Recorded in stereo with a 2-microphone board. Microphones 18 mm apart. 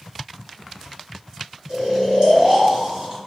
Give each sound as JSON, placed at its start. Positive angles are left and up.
{"t": 1.7, "sound": "snoring", "side_deg": -55, "distance_m": 1.7}